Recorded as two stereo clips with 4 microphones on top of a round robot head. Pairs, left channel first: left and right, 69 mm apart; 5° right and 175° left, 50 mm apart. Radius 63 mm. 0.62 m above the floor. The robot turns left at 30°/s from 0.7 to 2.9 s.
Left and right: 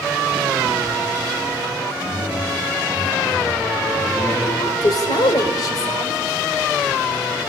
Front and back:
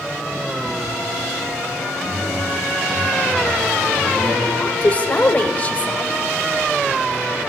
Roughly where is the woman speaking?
Ahead left.